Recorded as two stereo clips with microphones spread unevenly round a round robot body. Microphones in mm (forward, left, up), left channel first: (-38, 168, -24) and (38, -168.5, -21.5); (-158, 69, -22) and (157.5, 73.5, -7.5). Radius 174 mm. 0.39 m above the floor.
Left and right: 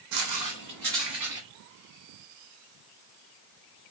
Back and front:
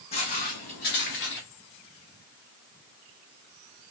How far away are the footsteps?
About 0.9 m.